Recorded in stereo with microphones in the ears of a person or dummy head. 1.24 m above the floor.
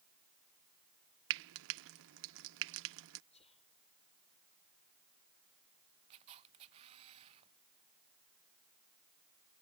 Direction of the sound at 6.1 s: 35° right (ahead or behind).